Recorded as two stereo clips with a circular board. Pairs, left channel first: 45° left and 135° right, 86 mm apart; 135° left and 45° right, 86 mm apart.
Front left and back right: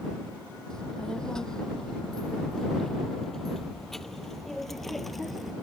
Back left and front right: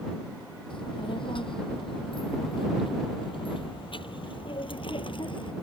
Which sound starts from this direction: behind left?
A child speaking, at 0.7 s.